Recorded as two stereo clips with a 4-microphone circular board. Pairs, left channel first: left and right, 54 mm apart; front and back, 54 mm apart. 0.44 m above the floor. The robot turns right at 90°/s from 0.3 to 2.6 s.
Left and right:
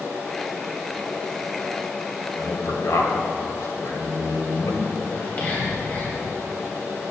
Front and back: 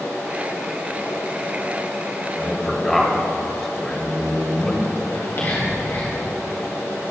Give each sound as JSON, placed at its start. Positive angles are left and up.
{"t": 2.4, "sound": "a man speaking", "azimuth_deg": 60, "distance_m": 1.7}
{"t": 5.1, "sound": "whispering", "azimuth_deg": 35, "distance_m": 2.0}